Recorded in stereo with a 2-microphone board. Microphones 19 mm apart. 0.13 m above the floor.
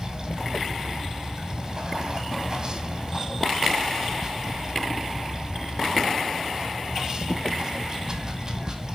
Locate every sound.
0.0 s running water: 25° right (ahead or behind), 1.5 m